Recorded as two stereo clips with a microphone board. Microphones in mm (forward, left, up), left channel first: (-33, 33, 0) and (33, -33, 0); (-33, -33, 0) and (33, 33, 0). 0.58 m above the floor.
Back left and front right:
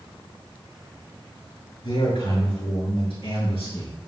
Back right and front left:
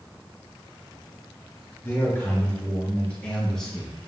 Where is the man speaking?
160° left, 7 m; by 4.0 s 135° left, 7 m.